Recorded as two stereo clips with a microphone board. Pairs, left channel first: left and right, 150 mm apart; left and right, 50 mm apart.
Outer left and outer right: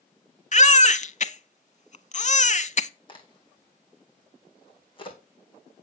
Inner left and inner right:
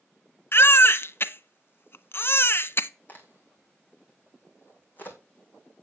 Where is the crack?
35° left (ahead or behind), 3 m.